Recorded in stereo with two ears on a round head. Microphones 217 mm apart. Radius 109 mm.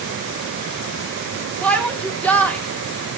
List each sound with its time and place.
1.6 s a shout: 5° left (ahead or behind), 1.4 m